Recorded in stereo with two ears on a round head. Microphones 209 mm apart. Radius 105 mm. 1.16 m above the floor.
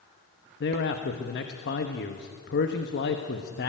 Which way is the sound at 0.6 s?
45° left (ahead or behind).